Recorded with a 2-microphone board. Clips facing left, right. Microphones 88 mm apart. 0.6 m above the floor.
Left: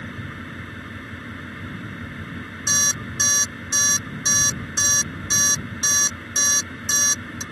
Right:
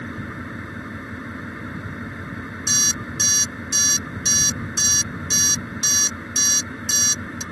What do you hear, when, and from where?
0.0 s an engine running: 15° right (ahead or behind)
2.7 s an alarm clock: 35° left (ahead or behind)